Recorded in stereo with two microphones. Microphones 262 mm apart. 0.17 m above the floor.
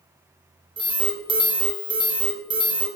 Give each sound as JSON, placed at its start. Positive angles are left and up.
{"t": 0.8, "sound": "an alarm", "side_deg": -20, "distance_m": 0.8}